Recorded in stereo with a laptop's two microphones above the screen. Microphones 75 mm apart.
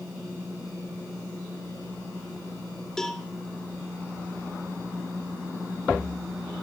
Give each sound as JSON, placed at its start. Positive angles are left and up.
{"t": 3.0, "sound": "a cowbell", "side_deg": 10, "distance_m": 1.2}